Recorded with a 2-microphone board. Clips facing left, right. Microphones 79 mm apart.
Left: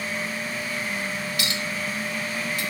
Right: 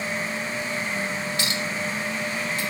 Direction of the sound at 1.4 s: 30° right (ahead or behind).